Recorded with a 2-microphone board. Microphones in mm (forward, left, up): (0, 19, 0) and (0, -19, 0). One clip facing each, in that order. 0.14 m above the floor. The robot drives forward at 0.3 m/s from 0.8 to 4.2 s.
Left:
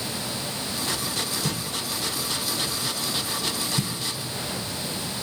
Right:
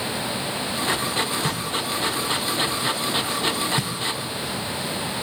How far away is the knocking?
About 1.8 m.